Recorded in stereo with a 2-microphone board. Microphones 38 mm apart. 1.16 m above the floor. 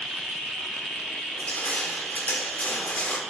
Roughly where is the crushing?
Left.